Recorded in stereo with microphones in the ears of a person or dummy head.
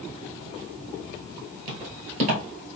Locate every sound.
1.7 s footsteps: 35° right (ahead or behind), 1.6 m; by 2.8 s 50° right (ahead or behind), 1.8 m